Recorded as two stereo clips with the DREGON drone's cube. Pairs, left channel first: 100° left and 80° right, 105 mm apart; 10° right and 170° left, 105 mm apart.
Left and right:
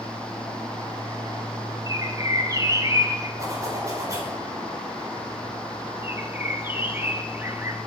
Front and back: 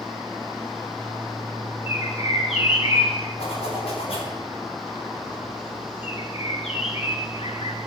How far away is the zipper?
About 4.5 m.